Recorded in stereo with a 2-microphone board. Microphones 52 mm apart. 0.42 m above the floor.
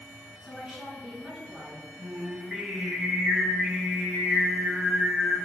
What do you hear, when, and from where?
0.4 s a woman speaking: 15° right (ahead or behind), 4.5 m
2.0 s singing: 10° right (ahead or behind), 2.5 m